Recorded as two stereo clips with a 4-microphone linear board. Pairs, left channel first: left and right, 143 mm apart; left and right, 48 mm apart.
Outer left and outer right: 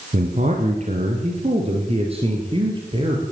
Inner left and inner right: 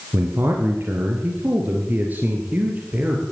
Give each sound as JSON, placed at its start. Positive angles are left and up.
{"t": 0.1, "sound": "a man speaking", "side_deg": -60, "distance_m": 3.0}